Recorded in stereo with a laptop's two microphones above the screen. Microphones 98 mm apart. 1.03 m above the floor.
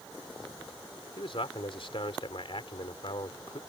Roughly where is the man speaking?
Left.